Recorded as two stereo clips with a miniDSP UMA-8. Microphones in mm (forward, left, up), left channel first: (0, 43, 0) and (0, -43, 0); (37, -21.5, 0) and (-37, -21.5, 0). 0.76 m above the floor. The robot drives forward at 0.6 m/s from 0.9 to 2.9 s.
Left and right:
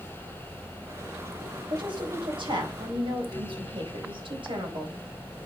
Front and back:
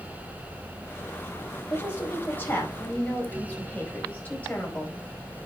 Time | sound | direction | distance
1.7 | a woman speaking | 60° right | 5 m